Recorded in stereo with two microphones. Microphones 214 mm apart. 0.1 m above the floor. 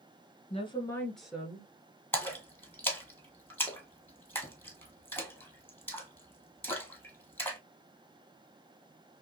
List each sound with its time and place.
0.5 s a woman speaking: 30° left (ahead or behind), 1.4 m; by 1.7 s 15° right (ahead or behind), 1.7 m
2.1 s a splash: 10° left (ahead or behind), 1.3 m